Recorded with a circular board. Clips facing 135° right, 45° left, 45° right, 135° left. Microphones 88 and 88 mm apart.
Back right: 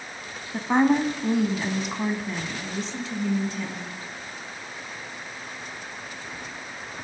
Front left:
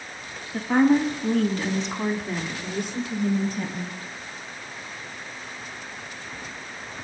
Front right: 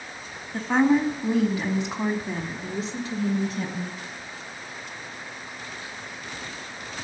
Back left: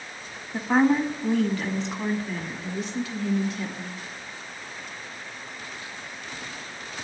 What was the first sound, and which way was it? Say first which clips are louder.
A woman speaking: front left 1 dB, even; 155° right.